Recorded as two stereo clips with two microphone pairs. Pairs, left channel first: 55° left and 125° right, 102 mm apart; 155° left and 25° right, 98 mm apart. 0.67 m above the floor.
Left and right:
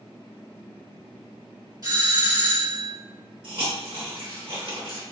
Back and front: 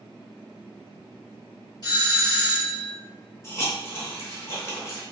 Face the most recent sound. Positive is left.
turn(degrees=-145)